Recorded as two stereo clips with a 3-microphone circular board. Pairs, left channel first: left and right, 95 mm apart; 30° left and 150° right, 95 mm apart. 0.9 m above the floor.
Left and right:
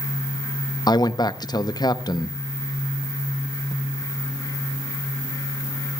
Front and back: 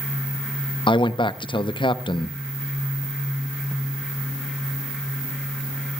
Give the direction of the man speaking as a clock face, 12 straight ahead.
10 o'clock.